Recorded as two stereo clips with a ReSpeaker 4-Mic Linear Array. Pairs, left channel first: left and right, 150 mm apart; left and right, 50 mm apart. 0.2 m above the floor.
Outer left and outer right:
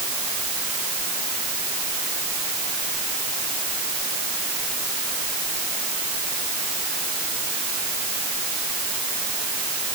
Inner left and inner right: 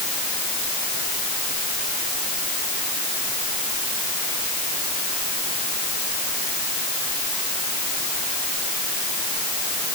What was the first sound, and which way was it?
Only background noise.